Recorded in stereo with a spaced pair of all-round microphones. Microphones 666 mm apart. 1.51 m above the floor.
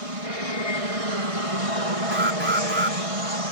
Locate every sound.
0.0 s an aircraft: 55° right (ahead or behind)
2.1 s an alarm: 15° right (ahead or behind)